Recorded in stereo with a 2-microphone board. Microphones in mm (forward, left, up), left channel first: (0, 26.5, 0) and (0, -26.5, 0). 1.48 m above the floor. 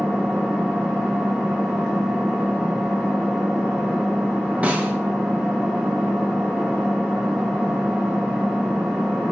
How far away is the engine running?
About 0.9 m.